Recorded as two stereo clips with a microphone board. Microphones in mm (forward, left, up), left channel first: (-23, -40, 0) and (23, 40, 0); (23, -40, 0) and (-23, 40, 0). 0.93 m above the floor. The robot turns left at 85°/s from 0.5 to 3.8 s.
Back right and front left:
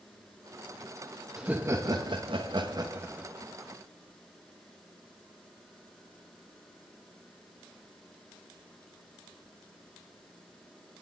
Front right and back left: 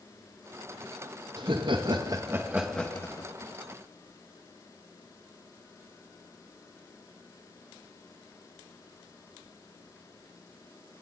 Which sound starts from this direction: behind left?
Laughter, at 1.4 s.